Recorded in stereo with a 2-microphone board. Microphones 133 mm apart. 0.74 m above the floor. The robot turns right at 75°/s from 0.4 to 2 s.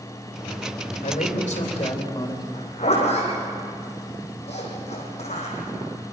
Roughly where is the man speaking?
Left.